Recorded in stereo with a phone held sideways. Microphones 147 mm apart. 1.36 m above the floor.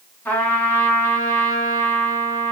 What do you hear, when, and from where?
0.2 s a trumpet: 15° left (ahead or behind), 3 m